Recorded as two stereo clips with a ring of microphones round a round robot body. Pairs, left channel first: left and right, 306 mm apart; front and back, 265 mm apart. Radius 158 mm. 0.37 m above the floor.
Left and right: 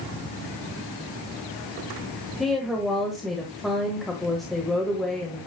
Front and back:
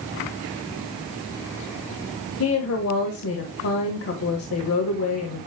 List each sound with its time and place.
2.4 s a woman speaking: straight ahead, 1.6 m